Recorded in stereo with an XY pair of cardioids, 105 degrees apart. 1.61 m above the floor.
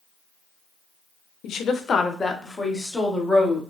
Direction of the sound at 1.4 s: 65° left.